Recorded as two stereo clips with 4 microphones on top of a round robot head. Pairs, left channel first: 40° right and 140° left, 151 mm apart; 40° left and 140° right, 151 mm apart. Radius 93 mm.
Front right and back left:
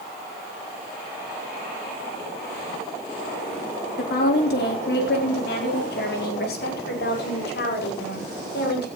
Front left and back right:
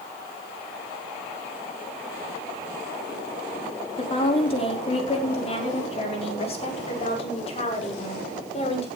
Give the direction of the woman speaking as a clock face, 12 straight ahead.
1 o'clock.